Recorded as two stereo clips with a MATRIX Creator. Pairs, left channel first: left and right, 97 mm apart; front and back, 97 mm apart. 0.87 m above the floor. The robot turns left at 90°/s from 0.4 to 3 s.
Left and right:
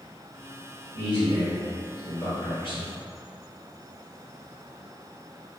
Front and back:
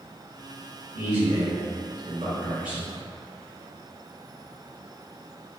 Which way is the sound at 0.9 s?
100° right.